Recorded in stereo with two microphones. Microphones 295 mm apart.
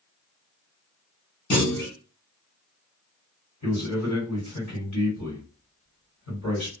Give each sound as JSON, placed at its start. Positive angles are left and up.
{"t": 1.5, "sound": "a clunk", "side_deg": 40, "distance_m": 1.0}
{"t": 3.6, "sound": "a man speaking", "side_deg": 65, "distance_m": 1.9}